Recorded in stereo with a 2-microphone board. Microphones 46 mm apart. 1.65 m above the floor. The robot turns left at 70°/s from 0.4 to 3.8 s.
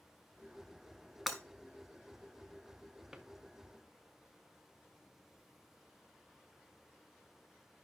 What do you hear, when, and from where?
1.3 s breaking glass: 5° right (ahead or behind), 1.9 m; by 1.4 s 10° right (ahead or behind), 1.9 m
3.1 s a drawer: 15° right (ahead or behind), 0.9 m; by 3.3 s 10° right (ahead or behind), 0.9 m